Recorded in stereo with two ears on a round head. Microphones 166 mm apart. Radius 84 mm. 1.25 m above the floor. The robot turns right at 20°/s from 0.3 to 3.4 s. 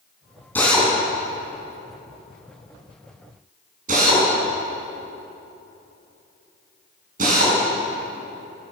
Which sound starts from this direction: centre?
A drill, at 0.6 s.